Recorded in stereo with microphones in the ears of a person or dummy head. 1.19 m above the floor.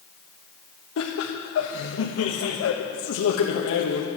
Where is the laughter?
70° left (ahead or behind), 1.3 m.